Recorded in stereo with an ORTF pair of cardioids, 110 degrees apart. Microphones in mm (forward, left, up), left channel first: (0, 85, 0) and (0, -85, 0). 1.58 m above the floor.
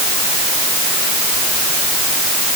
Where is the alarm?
No alarm in this recording.